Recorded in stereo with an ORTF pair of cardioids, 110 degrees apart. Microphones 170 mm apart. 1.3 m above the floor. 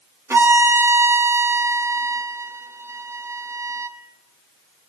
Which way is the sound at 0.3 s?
15° right.